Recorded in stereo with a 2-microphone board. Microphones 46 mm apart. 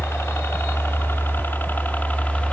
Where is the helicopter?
65° left (ahead or behind); by 2.5 s 30° left (ahead or behind).